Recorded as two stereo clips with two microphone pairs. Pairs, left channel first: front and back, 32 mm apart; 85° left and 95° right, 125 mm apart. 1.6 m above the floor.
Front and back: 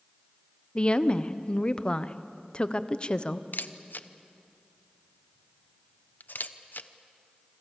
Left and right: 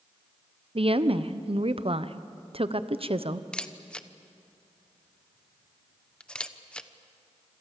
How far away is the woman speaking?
About 0.9 m.